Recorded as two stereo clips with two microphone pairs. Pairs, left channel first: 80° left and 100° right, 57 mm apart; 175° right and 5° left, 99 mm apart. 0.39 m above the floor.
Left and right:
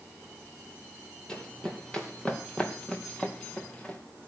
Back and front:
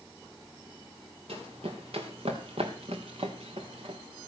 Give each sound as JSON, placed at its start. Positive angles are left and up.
{"t": 1.3, "sound": "running footsteps", "azimuth_deg": 5, "distance_m": 3.5}